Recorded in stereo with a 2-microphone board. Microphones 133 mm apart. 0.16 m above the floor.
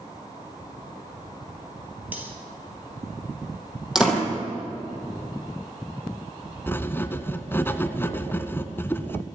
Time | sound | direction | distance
2.1 | cutlery clinking | 10° right (ahead or behind) | 2.5 m
4.0 | a door slam | 5° right (ahead or behind) | 3.5 m
6.7 | writing | 15° left (ahead or behind) | 0.8 m